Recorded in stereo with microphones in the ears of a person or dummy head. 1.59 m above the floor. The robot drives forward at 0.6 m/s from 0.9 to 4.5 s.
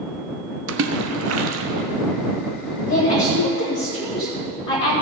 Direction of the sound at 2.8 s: 35° left (ahead or behind).